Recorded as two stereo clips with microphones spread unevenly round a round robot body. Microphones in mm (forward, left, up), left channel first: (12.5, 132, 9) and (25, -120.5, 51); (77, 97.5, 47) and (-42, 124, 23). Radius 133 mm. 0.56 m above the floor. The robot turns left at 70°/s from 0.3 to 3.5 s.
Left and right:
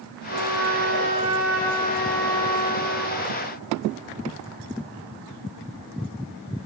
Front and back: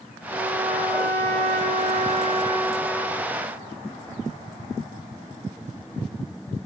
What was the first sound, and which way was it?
A trumpet, 90° right.